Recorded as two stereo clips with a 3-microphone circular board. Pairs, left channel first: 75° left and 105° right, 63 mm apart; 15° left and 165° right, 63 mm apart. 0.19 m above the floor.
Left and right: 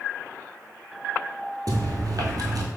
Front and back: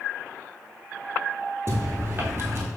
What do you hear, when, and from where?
1.7 s chewing: 115° right, 0.9 m